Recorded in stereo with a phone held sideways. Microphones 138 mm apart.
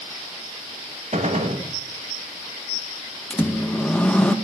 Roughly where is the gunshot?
Right.